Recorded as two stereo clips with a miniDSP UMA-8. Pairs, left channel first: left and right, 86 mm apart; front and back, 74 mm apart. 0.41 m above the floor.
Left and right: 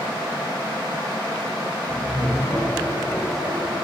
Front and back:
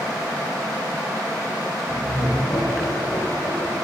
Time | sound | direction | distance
1.9 | laughter | 20° left | 9.5 m